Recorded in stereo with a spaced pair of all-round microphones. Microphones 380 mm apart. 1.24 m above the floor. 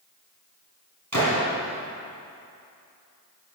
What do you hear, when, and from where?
1.1 s a gunshot: 45° right (ahead or behind), 3.5 m